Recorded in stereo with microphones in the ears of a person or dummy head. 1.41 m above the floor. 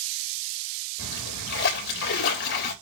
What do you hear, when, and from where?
1.0 s a splash: 65° left (ahead or behind), 3.5 m